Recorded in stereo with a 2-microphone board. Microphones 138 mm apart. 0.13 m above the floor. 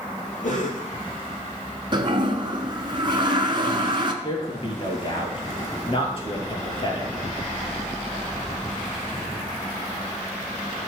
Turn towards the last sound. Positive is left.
turn(degrees=40)  # may be behind; listen again after turning